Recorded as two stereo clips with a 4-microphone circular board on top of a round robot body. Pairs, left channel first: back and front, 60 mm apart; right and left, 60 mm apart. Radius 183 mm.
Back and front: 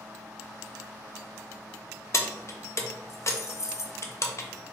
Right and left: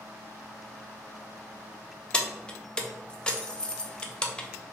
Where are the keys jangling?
160° right, 0.6 m.